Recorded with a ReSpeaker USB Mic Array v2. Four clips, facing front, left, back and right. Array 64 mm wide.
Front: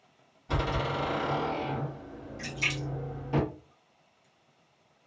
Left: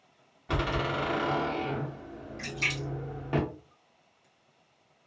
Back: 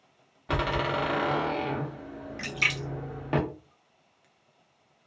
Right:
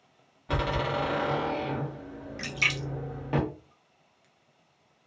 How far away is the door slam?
About 0.9 m.